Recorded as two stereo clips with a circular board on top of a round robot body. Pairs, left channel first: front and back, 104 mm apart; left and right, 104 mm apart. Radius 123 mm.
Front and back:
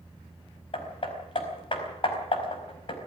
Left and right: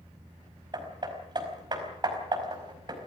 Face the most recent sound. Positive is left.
turn(degrees=-40)